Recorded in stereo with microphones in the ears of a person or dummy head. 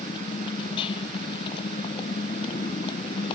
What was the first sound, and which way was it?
A motorcycle, 30° left (ahead or behind).